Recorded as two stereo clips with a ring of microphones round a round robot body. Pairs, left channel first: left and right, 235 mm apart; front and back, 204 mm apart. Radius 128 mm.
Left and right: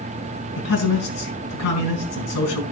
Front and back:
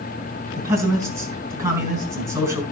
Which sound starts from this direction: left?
A man speaking, at 0.6 s.